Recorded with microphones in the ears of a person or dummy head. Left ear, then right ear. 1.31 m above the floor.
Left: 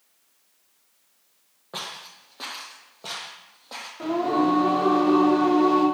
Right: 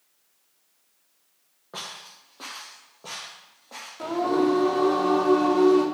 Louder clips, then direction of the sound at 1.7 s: Left 2 dB; 20° left (ahead or behind).